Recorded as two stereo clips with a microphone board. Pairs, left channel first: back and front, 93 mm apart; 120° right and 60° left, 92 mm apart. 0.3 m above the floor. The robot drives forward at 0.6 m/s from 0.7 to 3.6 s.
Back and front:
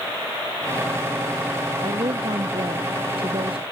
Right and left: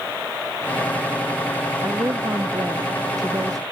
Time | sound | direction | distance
1.8 | a woman speaking | 10° left | ?